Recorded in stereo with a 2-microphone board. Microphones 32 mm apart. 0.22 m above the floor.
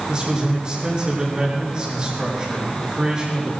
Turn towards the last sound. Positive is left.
turn(degrees=-30)  # may be behind; listen again after turning